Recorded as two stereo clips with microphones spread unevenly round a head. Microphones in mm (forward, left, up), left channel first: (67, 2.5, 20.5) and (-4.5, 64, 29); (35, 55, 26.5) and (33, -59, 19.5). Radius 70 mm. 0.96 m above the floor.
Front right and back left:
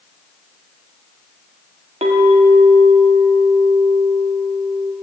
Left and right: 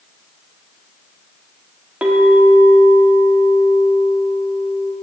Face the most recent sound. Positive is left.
turn(degrees=-175)